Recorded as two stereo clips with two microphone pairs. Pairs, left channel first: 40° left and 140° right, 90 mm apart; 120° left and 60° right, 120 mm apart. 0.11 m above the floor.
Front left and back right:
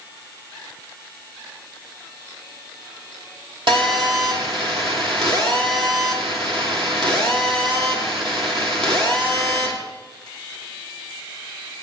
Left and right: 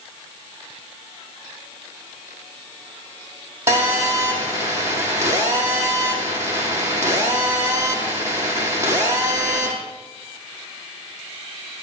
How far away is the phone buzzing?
About 4.5 m.